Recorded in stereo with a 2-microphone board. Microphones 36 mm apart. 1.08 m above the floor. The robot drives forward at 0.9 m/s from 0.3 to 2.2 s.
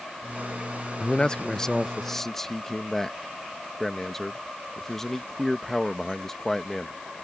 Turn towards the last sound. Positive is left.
turn(degrees=10)  # may be behind; listen again after turning